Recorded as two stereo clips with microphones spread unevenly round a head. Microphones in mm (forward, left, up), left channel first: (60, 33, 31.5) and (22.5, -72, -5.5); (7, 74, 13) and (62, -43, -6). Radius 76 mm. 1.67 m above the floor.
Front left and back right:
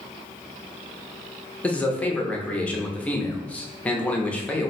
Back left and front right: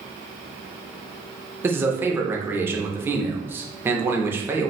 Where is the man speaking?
10° left, 0.6 m.